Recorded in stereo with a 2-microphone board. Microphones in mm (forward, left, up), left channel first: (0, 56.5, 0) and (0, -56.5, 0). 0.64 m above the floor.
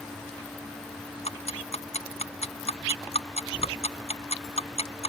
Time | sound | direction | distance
1.2 | ticking | 70° left (ahead or behind) | ?